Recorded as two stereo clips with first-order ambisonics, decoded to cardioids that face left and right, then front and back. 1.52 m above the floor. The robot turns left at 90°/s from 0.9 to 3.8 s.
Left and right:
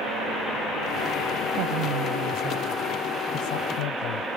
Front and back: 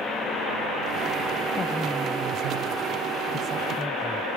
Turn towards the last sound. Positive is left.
turn(degrees=90)